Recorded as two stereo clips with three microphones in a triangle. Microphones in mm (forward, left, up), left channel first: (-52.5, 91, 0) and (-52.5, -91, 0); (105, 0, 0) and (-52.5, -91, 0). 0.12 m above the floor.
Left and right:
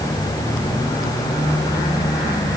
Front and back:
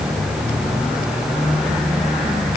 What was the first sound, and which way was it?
Only background noise.